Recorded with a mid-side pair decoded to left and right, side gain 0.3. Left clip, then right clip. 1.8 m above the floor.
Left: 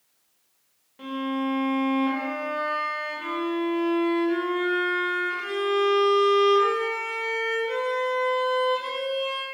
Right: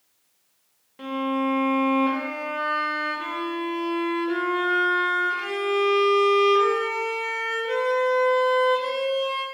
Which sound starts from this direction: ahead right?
A violin, at 1.0 s.